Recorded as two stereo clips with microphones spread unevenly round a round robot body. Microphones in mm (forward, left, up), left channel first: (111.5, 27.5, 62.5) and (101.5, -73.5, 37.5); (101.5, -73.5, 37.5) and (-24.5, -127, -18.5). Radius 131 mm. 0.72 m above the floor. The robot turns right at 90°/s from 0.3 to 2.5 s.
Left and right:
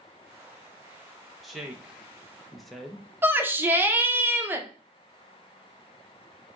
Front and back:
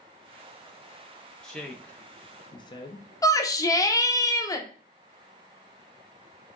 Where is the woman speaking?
145° right, 0.6 m; by 3.1 s 50° right, 0.6 m.